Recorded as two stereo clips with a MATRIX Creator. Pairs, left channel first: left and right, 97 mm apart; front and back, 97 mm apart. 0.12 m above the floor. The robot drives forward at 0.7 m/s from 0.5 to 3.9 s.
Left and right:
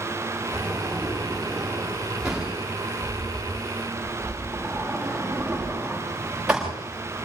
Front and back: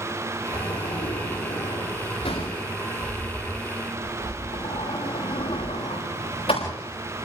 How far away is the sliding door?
About 10 m.